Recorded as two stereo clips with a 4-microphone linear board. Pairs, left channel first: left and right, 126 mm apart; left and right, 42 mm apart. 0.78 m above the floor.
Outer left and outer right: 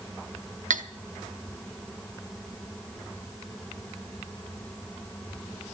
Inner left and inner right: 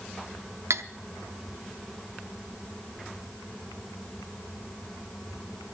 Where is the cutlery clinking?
85° right, 0.8 m.